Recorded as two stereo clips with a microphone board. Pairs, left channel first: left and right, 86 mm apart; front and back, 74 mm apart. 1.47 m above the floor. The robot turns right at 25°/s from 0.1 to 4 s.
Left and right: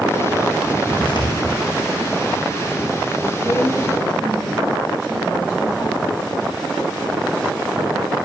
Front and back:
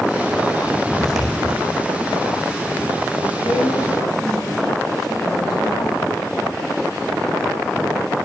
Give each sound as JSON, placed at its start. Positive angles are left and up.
{"t": 0.9, "sound": "footsteps", "azimuth_deg": 85, "distance_m": 4.5}
{"t": 3.4, "sound": "a woman speaking", "azimuth_deg": 30, "distance_m": 7.0}